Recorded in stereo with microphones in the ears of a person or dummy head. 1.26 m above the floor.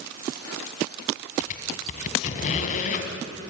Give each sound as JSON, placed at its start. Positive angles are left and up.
{"t": 1.4, "sound": "a squeak", "side_deg": 45, "distance_m": 2.5}